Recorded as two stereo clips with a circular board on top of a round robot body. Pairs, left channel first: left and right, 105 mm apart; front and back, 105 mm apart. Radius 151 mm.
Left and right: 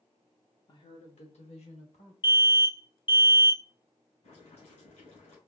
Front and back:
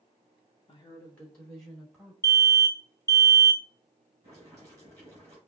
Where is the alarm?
55° left, 1.4 m.